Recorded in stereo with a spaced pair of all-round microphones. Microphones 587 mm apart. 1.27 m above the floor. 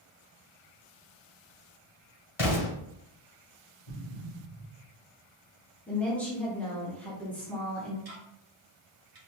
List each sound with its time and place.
2.4 s an explosion: 60° left (ahead or behind), 2.0 m
3.9 s an explosion: 60° left (ahead or behind), 2 m
5.9 s a woman speaking: centre (ahead or behind), 1.0 m
8.1 s ticking: 75° right (ahead or behind), 0.9 m